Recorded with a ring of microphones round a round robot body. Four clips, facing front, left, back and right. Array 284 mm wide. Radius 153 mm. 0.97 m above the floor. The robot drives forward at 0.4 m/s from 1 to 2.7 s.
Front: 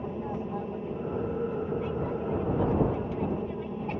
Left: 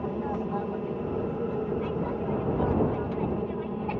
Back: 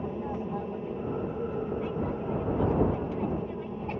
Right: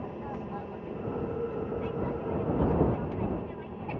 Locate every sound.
0.0 s an aircraft: 90° left; by 4.0 s 75° left